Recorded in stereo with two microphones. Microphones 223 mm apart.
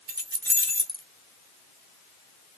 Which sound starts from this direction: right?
Keys jangling, at 0.1 s.